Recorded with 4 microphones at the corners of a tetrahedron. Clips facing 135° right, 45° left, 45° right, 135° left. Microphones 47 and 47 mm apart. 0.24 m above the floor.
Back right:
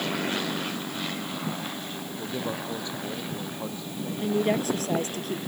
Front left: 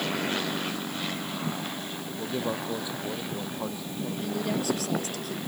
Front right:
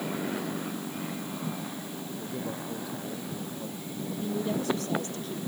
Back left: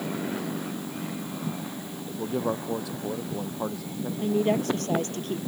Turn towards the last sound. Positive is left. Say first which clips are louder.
# back right 6 dB, back left 7 dB
turn(degrees=170)